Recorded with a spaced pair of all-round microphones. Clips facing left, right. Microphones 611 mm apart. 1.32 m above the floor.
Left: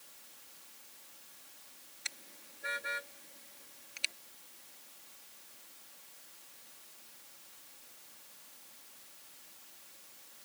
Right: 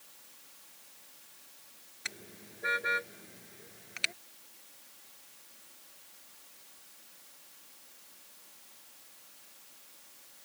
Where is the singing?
I don't hear singing.